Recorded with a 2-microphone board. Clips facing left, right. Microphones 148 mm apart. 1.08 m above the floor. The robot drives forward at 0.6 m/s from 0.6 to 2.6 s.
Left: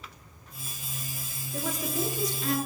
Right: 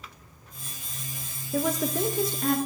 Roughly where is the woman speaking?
Right.